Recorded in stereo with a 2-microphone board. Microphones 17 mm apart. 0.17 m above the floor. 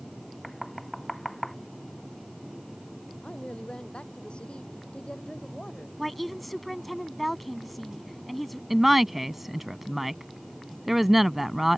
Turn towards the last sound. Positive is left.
turn(degrees=-10)  # may be behind; listen again after turning